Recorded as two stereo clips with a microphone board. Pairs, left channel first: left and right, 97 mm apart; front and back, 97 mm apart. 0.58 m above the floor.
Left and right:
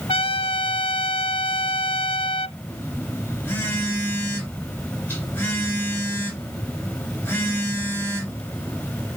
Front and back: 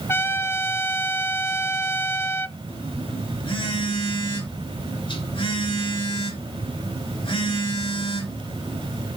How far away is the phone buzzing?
About 4 m.